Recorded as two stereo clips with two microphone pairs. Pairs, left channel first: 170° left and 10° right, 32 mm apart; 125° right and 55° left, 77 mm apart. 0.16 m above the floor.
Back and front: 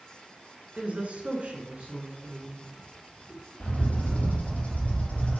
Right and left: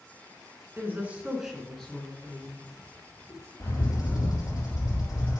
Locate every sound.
0.8 s a woman speaking: 10° left, 1.6 m; by 3.5 s 80° right, 2.5 m
3.6 s a bird: 155° right, 3 m